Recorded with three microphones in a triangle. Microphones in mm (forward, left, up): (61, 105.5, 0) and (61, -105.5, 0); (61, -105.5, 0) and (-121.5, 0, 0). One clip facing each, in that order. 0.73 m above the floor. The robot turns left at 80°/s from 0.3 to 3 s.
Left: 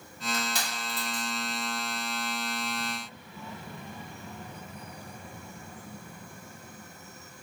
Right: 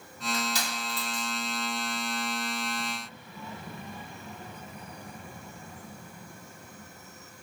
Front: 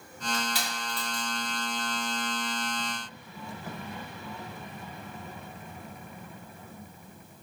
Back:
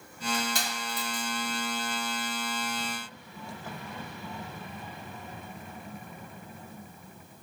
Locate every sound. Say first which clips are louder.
0.3 s crushing: right 2 dB, back 1 dB; 130° left, 1.6 m; by 1.3 s 55° left, 1.6 m